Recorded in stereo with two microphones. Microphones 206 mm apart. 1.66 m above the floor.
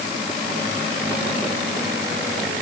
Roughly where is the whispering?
I don't hear whispering.